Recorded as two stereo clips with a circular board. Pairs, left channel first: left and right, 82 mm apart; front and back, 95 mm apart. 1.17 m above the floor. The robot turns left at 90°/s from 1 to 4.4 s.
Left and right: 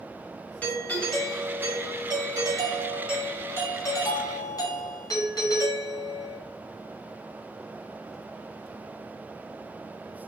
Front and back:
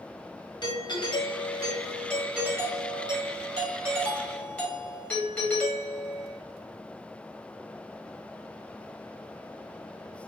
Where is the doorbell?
20° left, 1.2 m; by 6.4 s 75° left, 1.2 m.